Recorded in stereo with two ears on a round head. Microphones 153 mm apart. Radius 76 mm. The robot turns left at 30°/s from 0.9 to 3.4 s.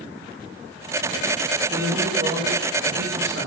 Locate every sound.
1.7 s a man speaking: 25° right, 2 m; by 3.5 s 75° right, 2 m